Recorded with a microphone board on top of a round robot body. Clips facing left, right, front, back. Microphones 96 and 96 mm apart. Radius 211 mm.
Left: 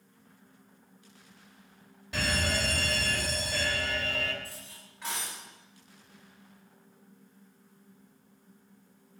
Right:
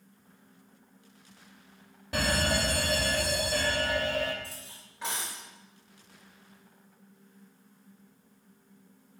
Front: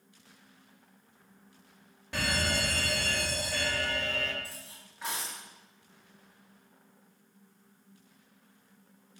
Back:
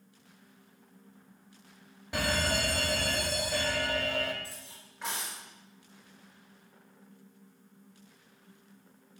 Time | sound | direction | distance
2.1 | a fire alarm | 105° right | 3 m
4.4 | cutlery clinking | 90° right | 7.5 m